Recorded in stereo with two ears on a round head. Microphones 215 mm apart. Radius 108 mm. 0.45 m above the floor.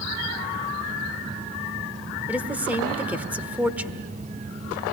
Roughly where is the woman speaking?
Centre.